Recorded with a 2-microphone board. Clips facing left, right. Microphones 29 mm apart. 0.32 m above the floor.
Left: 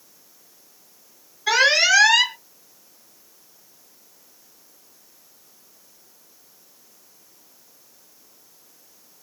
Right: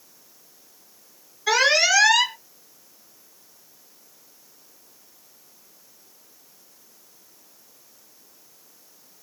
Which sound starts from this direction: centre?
An alarm, at 1.5 s.